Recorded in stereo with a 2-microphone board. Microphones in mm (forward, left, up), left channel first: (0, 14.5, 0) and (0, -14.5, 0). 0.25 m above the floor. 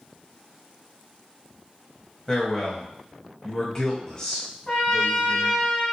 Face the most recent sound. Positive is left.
turn(degrees=25)  # may be behind; listen again after turning